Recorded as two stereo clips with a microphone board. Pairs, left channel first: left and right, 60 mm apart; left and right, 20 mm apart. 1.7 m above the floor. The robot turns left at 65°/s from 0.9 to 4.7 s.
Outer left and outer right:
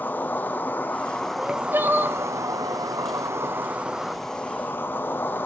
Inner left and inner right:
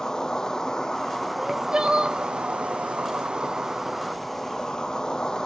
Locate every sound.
0.0 s an insect: 30° left, 1.1 m; by 5.5 s 145° left, 1.1 m
1.4 s crying: 50° right, 1.3 m; by 2.2 s 105° right, 1.3 m